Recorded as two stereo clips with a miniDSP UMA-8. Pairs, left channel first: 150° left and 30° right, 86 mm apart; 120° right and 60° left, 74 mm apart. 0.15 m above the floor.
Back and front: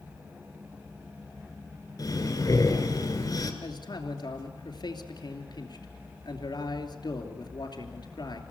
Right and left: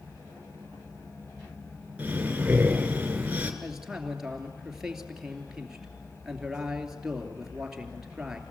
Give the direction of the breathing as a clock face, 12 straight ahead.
8 o'clock.